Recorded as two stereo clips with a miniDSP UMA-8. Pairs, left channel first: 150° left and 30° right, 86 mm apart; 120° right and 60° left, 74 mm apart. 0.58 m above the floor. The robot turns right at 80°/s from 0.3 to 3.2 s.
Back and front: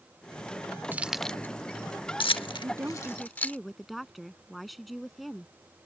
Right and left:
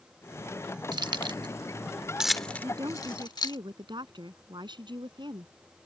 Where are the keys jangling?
35° left; by 3.6 s 140° right.